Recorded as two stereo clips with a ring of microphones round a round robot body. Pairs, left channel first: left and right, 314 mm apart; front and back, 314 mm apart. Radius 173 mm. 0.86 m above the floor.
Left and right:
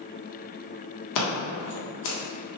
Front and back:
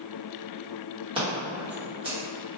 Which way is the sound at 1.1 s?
105° left.